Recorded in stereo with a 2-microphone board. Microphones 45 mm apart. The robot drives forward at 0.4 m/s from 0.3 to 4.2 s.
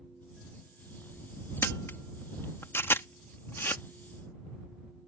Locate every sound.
1.6 s a camera shutter: 85° left; by 3.8 s 60° left (ahead or behind)